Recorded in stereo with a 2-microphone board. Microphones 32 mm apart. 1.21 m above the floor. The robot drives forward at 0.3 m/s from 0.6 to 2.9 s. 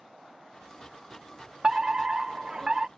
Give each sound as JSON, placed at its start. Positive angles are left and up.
{"t": 1.6, "sound": "a fire alarm", "side_deg": -25}